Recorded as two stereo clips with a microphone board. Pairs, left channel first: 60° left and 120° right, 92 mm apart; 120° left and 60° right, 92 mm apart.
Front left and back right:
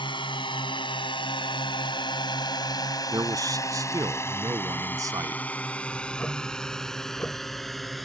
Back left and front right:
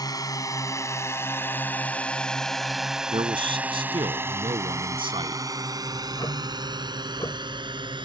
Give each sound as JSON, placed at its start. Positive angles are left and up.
{"t": 0.0, "sound": "a drone", "azimuth_deg": 80}
{"t": 3.1, "sound": "a man speaking", "azimuth_deg": -70}
{"t": 5.9, "sound": "ticking", "azimuth_deg": 120}